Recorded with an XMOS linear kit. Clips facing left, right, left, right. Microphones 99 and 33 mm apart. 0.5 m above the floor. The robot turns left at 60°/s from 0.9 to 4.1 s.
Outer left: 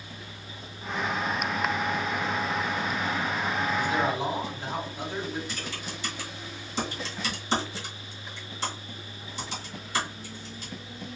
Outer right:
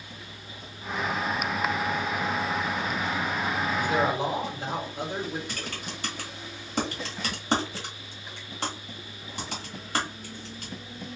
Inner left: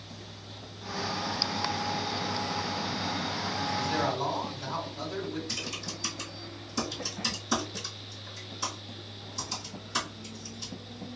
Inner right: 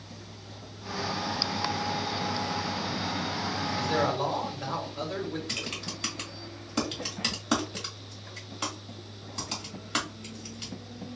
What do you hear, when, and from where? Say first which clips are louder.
3.8 s a man speaking: outer right 3 dB, inner right 3 dB; 55° right (ahead or behind), 1.9 m; by 5.4 s 65° right (ahead or behind), 1.9 m
5.5 s typing on a keyboard: even, inner right 1 dB; 60° right (ahead or behind), 1.5 m